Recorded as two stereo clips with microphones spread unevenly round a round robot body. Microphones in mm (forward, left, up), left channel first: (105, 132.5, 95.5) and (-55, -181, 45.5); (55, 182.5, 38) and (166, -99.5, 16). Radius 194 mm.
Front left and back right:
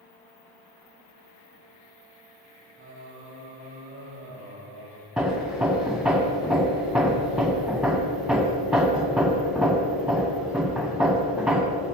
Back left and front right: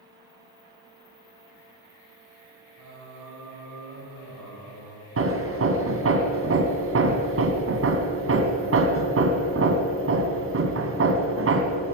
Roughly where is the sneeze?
No sneeze in this recording.